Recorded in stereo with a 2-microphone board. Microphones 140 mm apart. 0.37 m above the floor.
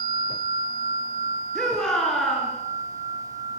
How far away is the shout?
About 5.5 m.